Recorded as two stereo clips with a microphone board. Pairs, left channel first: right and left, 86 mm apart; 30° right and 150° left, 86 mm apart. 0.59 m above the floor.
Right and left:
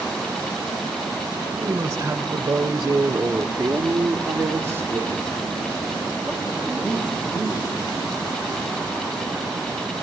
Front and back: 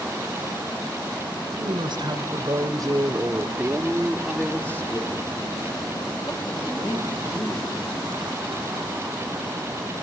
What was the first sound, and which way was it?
A woman speaking, 135° left.